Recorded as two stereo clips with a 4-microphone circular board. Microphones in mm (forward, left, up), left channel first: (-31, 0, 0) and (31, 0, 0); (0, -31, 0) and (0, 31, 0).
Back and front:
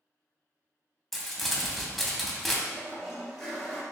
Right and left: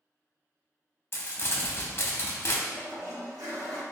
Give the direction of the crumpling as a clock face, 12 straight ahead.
3 o'clock.